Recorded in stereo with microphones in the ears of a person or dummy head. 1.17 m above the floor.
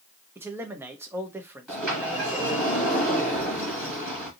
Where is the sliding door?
5° right (ahead or behind), 1.8 m.